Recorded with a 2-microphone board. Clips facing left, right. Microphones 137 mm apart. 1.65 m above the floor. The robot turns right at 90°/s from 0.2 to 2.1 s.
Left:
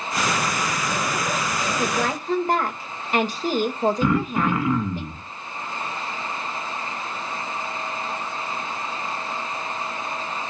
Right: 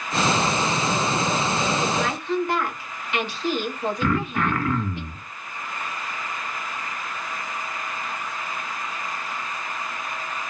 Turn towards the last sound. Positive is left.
turn(degrees=15)  # may be behind; listen again after turning